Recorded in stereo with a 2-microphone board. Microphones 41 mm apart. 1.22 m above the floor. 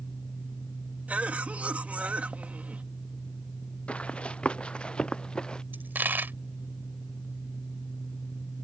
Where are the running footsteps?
30° left (ahead or behind); by 5.6 s 20° left (ahead or behind).